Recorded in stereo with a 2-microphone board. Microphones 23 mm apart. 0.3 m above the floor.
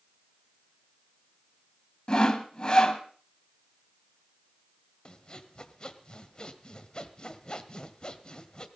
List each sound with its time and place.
2.1 s sawing: 35° left (ahead or behind), 1.9 m
5.0 s sawing: 35° left (ahead or behind), 1.5 m